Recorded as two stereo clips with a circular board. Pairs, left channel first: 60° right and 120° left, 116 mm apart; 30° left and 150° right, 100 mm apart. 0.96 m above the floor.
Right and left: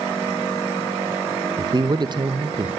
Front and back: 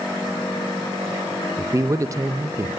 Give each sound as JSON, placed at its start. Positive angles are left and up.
{"t": 1.6, "sound": "a man speaking", "azimuth_deg": 160, "distance_m": 0.6}